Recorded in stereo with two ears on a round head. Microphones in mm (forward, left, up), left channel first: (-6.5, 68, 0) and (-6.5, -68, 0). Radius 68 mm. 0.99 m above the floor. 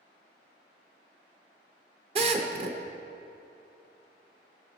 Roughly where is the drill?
Right.